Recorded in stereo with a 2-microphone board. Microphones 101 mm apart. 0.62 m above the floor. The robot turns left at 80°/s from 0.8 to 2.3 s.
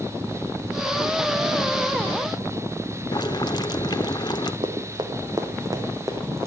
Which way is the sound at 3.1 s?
45° left (ahead or behind).